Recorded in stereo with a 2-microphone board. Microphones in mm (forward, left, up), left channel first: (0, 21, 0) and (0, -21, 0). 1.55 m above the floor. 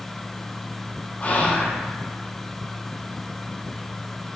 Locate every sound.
1.2 s whispering: 35° left (ahead or behind), 0.7 m